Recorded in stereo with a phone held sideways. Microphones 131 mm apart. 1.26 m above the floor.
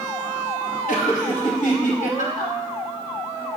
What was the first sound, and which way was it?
Laughter, 75° left (ahead or behind).